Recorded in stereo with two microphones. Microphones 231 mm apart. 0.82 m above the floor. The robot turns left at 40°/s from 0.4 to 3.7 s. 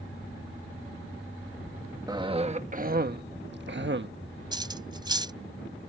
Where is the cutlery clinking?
20° right (ahead or behind).